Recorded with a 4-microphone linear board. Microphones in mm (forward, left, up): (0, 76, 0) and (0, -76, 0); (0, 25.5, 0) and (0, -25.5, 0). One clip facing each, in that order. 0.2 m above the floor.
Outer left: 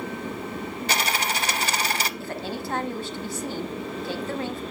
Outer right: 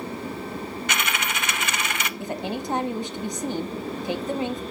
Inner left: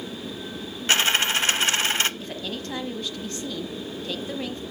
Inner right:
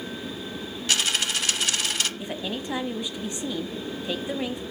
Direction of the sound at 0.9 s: 35° left (ahead or behind).